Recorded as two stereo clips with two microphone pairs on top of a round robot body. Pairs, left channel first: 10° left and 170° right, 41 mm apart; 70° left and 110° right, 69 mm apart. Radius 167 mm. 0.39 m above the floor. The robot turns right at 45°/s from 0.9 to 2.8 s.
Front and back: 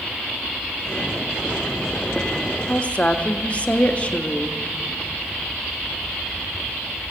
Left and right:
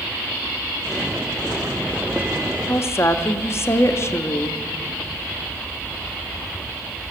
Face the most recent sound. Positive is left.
turn(degrees=60)